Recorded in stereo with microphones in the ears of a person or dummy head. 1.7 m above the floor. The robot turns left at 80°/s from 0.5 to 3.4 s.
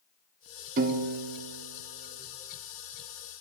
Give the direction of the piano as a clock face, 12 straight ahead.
2 o'clock.